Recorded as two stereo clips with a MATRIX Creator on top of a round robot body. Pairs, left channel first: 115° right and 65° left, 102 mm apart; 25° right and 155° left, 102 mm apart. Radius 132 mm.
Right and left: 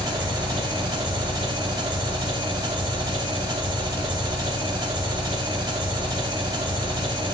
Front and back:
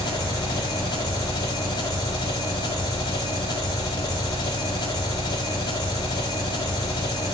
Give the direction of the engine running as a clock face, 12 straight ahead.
11 o'clock.